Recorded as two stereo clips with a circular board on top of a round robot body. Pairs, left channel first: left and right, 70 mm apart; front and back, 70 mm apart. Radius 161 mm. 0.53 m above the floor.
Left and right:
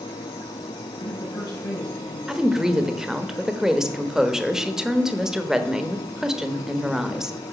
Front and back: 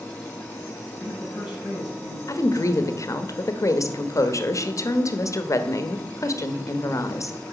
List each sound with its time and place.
1.0 s a man speaking: 100° left, 5 m
2.3 s a woman speaking: 10° right, 1.3 m